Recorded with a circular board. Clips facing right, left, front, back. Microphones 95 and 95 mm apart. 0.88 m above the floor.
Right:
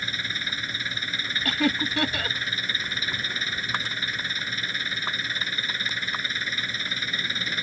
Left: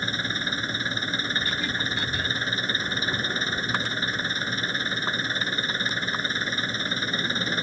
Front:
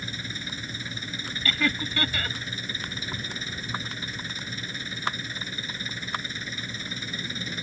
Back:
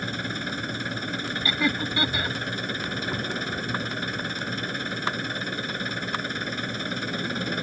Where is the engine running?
150° left.